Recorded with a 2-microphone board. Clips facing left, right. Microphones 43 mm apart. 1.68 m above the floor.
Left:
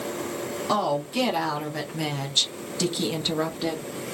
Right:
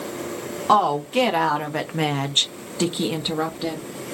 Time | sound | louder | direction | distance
0.7 | a woman speaking | right 7 dB | 45° right (ahead or behind) | 1.7 m